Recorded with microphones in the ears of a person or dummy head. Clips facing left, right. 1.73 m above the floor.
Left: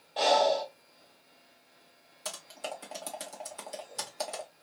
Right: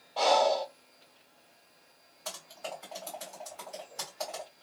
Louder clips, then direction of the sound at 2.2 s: Left 1 dB; 50° left (ahead or behind).